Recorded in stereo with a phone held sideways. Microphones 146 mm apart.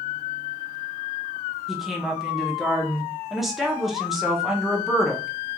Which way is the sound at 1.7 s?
Centre (ahead or behind).